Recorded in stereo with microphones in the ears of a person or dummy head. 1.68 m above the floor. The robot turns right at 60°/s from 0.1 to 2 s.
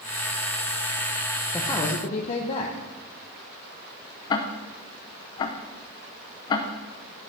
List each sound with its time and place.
1.5 s a man speaking: 10° left (ahead or behind), 1.2 m; by 2.7 s 35° left (ahead or behind), 1.2 m
4.3 s ticking: 20° left (ahead or behind), 0.7 m